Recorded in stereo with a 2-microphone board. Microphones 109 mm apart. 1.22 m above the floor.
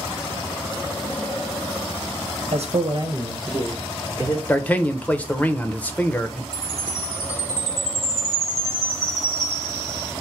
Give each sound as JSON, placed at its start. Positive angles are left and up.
{"t": 2.5, "sound": "a man speaking", "side_deg": -80, "distance_m": 1.1}
{"t": 4.5, "sound": "a man speaking", "side_deg": 15, "distance_m": 0.6}
{"t": 6.5, "sound": "a chime", "side_deg": 30, "distance_m": 2.5}